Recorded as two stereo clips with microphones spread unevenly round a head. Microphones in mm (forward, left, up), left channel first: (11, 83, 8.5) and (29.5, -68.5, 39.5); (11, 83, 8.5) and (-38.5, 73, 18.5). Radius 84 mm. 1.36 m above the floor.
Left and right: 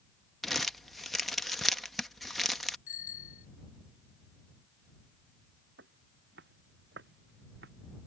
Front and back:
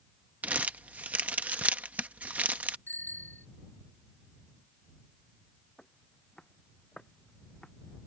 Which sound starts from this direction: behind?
Crumpling, at 0.4 s.